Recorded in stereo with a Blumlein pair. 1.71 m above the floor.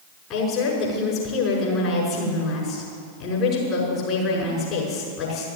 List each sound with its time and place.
0.3 s a woman speaking: 35° left, 6 m